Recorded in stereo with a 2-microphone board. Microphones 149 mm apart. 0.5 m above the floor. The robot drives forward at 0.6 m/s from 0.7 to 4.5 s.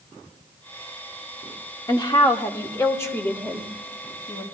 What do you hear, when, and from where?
1.9 s a woman speaking: 30° left (ahead or behind), 0.7 m; by 4.4 s 10° left (ahead or behind), 1.9 m